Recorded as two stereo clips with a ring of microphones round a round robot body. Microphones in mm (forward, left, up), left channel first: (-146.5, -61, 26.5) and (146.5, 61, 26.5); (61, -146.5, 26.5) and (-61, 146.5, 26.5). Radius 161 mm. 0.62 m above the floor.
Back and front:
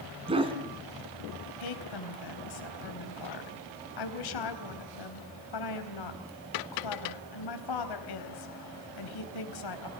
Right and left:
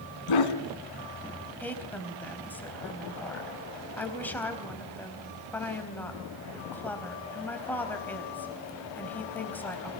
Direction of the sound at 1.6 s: 150° right.